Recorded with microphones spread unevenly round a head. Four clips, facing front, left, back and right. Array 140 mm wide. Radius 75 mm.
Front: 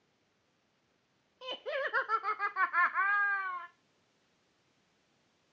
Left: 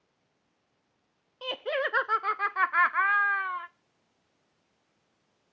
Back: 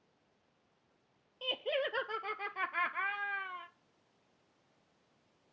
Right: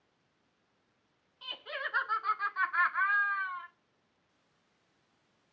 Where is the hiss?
I don't hear a hiss.